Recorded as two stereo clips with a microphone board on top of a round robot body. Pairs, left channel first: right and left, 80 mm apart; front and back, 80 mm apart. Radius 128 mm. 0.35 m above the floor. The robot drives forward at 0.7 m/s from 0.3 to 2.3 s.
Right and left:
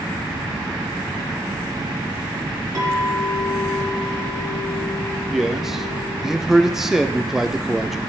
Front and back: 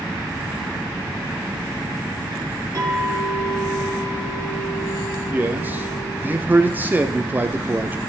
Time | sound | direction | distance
2.8 | a clink | 135° left | 4 m
5.3 | a man speaking | 165° left | 0.9 m